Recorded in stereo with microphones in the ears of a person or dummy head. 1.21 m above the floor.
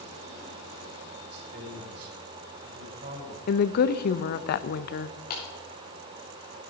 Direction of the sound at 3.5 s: 55° left (ahead or behind).